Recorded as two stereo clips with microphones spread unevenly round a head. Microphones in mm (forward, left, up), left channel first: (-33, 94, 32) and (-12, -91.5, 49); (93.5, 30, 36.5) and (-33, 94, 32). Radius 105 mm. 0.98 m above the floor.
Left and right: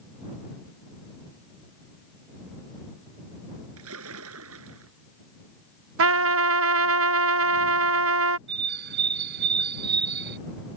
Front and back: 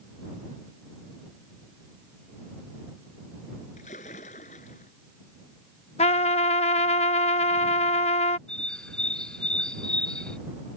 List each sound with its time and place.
3.8 s a splash: 85° right
6.0 s a trumpet: 85° right
8.5 s a bird: 110° right